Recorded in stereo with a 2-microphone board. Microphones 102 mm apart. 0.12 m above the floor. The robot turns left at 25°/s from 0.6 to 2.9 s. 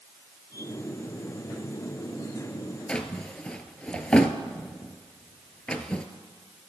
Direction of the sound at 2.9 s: 10° left (ahead or behind).